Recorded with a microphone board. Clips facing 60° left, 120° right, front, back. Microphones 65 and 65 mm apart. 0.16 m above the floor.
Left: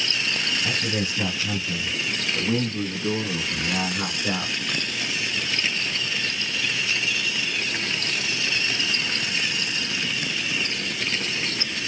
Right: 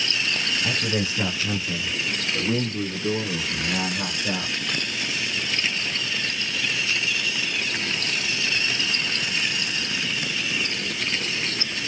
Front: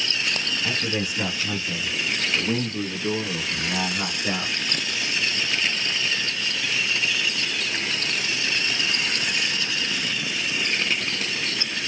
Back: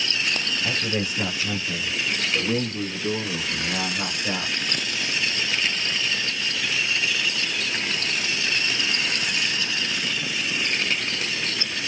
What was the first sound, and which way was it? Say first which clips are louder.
A man speaking: right 1 dB, even; 90° right.